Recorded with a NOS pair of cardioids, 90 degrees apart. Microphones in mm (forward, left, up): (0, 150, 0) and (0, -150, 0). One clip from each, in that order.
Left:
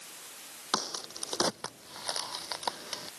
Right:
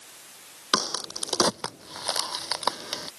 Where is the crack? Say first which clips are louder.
Right 7 dB; 50° right.